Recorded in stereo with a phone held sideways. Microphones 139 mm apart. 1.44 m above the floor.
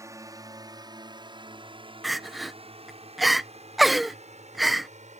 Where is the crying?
Centre (ahead or behind).